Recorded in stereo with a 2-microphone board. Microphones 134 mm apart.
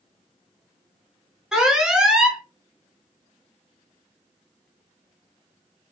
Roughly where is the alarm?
Centre.